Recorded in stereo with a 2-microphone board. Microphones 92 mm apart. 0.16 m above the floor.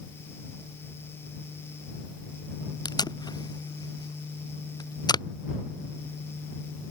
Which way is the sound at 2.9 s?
50° left (ahead or behind).